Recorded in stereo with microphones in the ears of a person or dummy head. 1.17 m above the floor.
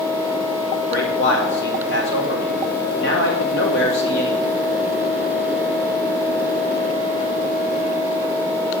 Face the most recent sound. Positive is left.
turn(degrees=65)  # may be behind; listen again after turning